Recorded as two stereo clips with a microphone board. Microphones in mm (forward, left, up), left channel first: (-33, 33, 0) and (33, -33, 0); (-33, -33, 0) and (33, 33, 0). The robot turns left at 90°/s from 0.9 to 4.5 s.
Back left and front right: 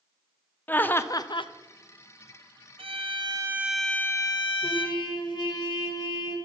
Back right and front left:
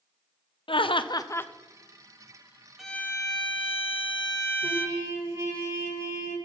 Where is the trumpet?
100° left, 2 m.